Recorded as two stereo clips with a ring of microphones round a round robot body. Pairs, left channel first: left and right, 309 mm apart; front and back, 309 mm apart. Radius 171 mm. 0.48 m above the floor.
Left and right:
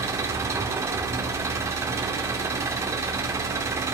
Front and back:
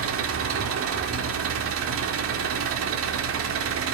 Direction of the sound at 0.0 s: 165° right.